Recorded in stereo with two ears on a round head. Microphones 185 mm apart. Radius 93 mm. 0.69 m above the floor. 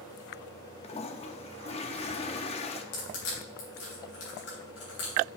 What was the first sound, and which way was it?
A toilet flushing, 30° left (ahead or behind).